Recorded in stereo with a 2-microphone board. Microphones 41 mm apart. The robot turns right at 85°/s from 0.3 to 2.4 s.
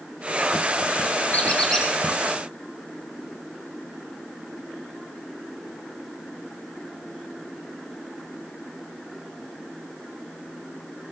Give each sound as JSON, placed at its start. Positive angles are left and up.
{"t": 1.3, "sound": "a squeak", "azimuth_deg": 130, "distance_m": 4.5}